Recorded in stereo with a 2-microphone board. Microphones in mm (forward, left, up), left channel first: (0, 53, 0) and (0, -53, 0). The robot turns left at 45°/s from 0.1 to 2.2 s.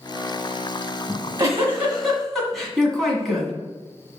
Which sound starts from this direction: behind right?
A giggle, at 1.1 s.